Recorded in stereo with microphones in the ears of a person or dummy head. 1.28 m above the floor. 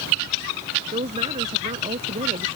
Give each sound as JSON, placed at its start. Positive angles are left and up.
{"t": 0.9, "sound": "a woman speaking", "side_deg": -30}